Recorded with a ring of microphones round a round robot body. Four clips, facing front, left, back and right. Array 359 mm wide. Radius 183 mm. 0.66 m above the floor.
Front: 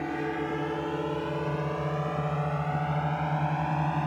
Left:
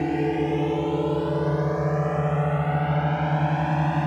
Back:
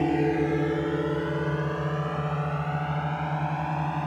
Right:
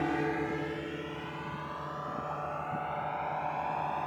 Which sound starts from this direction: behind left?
A drone, at 0.0 s.